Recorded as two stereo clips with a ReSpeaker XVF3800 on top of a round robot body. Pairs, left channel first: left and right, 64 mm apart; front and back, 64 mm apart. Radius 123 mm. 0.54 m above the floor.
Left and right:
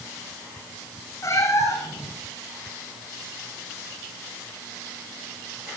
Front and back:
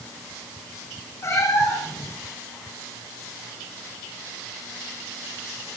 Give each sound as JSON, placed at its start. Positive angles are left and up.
{"t": 1.2, "sound": "a cat meowing", "azimuth_deg": 45, "distance_m": 6.0}